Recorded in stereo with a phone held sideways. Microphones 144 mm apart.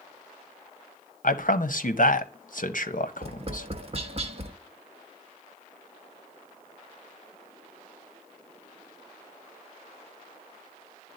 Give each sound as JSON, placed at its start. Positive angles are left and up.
{"t": 1.2, "sound": "a man speaking", "side_deg": 65, "distance_m": 0.7}
{"t": 3.2, "sound": "tapping", "side_deg": -40, "distance_m": 0.7}